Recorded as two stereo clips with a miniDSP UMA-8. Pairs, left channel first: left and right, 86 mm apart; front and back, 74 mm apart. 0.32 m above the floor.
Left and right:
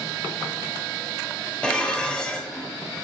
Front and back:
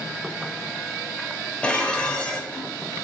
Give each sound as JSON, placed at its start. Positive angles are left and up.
{"t": 1.6, "sound": "dishes clattering", "azimuth_deg": 35, "distance_m": 0.5}